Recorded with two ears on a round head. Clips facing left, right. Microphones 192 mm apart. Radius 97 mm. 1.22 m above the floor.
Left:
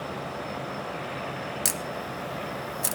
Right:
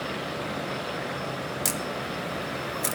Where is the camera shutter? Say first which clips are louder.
Right 2 dB; 10° left (ahead or behind), 0.7 m.